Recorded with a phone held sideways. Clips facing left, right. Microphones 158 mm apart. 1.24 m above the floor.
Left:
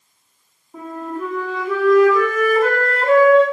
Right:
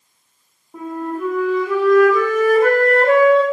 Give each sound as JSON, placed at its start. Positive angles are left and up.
{"t": 0.7, "sound": "a flute", "side_deg": -10, "distance_m": 0.7}